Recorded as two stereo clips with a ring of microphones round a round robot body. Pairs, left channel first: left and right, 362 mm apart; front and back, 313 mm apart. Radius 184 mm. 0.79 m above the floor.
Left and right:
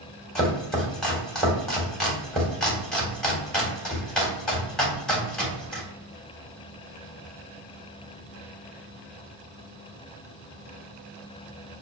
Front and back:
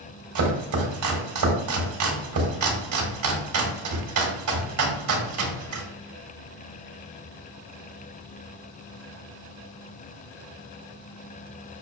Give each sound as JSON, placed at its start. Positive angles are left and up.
{"t": 0.3, "sound": "chopping", "azimuth_deg": 180, "distance_m": 1.4}